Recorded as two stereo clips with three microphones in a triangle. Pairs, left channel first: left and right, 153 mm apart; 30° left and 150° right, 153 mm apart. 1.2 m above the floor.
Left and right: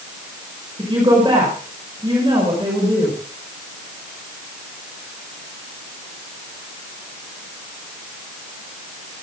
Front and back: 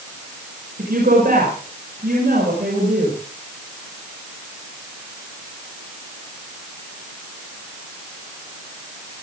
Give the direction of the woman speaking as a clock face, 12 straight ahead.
5 o'clock.